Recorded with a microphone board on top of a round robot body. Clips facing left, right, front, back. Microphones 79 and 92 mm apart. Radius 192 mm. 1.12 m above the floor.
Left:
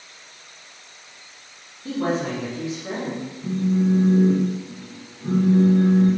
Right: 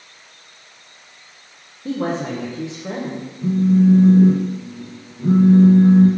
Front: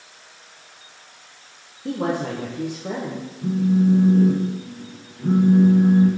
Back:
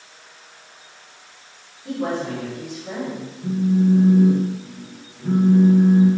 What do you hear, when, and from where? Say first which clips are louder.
1.9 s a woman speaking: right 1 dB, front 1 dB; 30° right, 0.8 m
3.4 s a phone buzzing: right 7 dB, even; 60° right, 0.6 m